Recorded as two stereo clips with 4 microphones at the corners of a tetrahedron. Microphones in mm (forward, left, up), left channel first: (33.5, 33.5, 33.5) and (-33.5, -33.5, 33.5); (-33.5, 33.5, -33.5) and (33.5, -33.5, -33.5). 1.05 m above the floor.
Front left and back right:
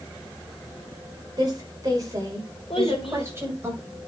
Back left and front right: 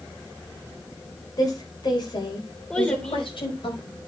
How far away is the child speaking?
About 2.5 m.